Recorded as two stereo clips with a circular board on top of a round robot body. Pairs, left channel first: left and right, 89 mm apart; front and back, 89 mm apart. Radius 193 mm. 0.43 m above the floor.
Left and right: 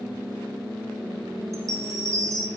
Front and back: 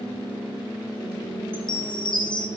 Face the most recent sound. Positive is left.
turn(degrees=-35)